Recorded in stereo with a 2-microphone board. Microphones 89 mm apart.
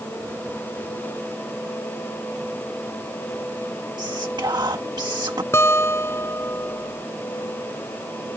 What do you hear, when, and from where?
4.0 s whispering: 55° right (ahead or behind)
5.5 s a guitar: 25° left (ahead or behind)